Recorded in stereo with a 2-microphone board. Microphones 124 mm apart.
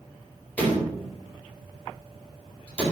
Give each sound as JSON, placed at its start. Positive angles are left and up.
{"t": 0.6, "sound": "a door slam", "side_deg": 15, "distance_m": 4.5}